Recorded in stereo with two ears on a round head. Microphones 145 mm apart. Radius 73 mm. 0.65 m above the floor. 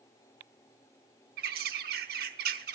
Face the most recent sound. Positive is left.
turn(degrees=-60)  # may be behind; listen again after turning